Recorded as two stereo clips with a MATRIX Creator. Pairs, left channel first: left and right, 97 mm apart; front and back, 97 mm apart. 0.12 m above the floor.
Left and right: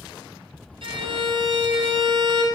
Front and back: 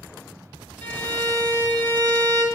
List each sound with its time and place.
0.8 s a violin: 75° right, 1.7 m